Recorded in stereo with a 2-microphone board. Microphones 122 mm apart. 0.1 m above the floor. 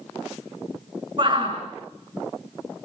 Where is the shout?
40° right (ahead or behind), 8 m.